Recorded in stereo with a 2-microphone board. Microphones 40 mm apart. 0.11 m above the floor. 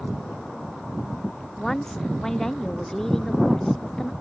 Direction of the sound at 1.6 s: 15° left (ahead or behind).